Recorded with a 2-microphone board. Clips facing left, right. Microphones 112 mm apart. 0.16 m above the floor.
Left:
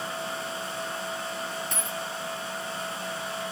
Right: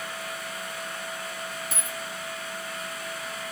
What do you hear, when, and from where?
1.7 s a dropped coin: 5° right (ahead or behind), 0.6 m